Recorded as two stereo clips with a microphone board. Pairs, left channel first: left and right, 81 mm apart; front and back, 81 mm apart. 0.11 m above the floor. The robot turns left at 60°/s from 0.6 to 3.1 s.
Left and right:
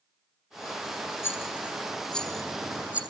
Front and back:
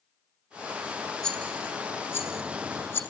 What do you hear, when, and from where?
1.2 s a rattle: 75° left, 1.1 m; by 3.0 s 30° right, 1.1 m